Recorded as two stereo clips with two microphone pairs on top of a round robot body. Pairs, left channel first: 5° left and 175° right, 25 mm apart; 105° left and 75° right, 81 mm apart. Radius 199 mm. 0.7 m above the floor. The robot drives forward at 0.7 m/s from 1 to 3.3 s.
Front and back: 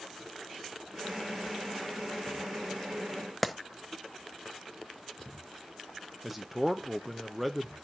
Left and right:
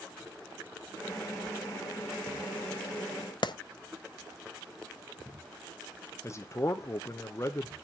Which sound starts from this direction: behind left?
A man speaking, at 6.2 s.